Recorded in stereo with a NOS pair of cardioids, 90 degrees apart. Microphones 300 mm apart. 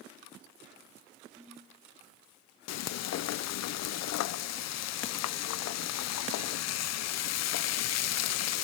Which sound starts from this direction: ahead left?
Frying, at 2.7 s.